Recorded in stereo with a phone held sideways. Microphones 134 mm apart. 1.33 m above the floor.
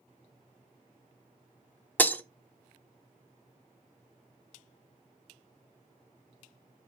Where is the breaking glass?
15° left (ahead or behind), 0.9 m.